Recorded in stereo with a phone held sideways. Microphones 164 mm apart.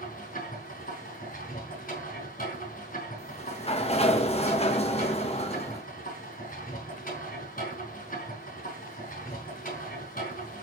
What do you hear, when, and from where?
0.0 s a machine running: 60° left (ahead or behind), 5 m
3.2 s a sliding door: 40° left (ahead or behind), 0.9 m